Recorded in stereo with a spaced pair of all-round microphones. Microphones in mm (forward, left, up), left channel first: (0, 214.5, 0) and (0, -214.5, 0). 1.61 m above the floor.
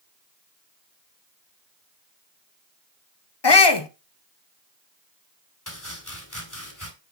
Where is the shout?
70° left (ahead or behind), 0.9 m.